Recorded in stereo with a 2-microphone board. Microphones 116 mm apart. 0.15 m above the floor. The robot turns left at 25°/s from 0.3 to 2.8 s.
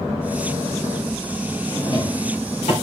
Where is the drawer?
40° left (ahead or behind), 8 m; by 2.7 s 65° left (ahead or behind), 8 m.